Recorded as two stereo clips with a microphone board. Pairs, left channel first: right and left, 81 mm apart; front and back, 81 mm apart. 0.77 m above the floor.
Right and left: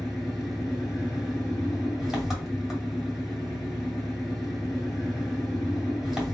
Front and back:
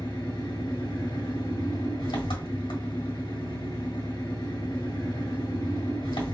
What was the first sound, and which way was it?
An engine running, 5° left.